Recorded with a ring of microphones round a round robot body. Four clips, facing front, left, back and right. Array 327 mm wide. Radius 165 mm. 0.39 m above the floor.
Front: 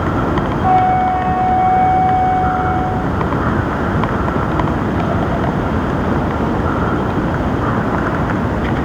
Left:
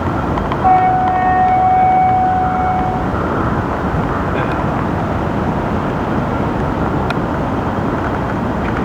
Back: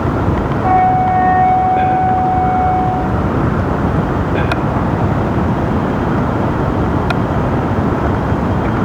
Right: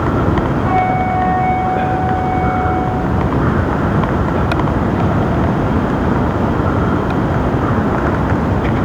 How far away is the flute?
About 6.5 m.